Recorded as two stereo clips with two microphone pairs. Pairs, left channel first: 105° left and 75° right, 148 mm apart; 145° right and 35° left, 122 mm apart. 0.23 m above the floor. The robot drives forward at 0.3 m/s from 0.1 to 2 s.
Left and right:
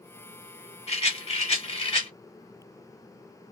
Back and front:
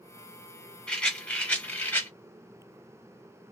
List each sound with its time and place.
0.9 s a rattle: 135° left, 1.6 m; by 2.1 s 145° left, 1.8 m